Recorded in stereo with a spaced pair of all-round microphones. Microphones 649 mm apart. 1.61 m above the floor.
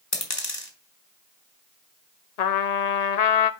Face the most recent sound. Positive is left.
turn(degrees=80)